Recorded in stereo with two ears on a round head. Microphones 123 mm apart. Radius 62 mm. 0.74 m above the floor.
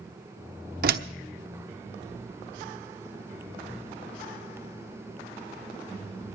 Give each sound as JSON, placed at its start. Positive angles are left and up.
{"t": 0.8, "sound": "a door slam", "side_deg": -75, "distance_m": 1.0}